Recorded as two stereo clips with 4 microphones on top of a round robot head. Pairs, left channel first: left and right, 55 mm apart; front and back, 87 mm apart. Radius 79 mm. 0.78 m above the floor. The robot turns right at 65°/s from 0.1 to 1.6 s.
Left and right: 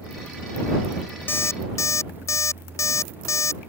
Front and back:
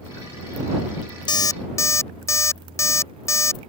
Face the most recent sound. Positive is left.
turn(degrees=60)